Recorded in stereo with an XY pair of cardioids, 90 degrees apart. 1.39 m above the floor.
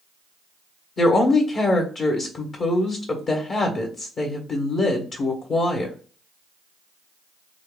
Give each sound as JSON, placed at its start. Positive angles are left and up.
{"t": 1.0, "sound": "a woman speaking", "azimuth_deg": 55, "distance_m": 1.4}